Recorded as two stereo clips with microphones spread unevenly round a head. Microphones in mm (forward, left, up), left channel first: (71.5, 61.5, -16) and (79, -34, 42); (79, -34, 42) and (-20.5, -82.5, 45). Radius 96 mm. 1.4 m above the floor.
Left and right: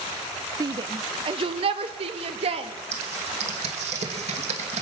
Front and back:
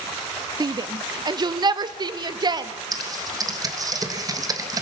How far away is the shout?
About 0.5 m.